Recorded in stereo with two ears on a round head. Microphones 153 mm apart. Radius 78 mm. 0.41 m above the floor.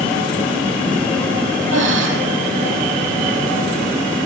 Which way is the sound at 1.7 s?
80° right.